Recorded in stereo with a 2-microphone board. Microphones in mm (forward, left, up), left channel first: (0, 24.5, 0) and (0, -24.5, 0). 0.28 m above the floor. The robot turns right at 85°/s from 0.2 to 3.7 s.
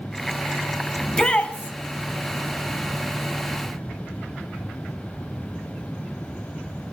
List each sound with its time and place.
1.0 s a shout: 5° left (ahead or behind), 1.5 m; by 1.7 s 35° left (ahead or behind), 1.5 m